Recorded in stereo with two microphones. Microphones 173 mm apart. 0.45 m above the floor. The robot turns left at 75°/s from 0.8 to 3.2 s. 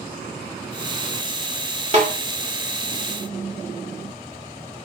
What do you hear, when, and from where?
1.9 s a snare drum: 40° right (ahead or behind), 1.3 m